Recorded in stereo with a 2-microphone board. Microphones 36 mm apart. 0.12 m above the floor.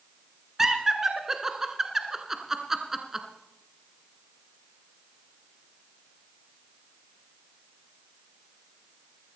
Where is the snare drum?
No snare drum in this recording.